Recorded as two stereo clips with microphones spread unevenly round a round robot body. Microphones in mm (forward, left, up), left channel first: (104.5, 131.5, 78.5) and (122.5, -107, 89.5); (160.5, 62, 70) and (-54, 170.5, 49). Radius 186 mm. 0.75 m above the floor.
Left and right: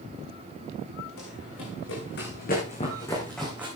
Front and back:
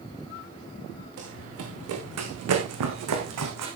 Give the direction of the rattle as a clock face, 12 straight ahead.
I don't hear a rattle.